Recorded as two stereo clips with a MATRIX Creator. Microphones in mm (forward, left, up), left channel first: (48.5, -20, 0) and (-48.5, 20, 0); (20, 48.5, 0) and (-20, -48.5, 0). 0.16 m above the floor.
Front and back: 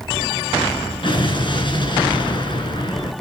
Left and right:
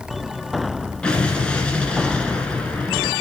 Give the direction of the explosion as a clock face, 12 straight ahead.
12 o'clock.